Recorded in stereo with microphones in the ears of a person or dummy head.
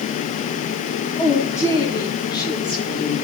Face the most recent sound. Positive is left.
turn(degrees=30)  # may be behind; listen again after turning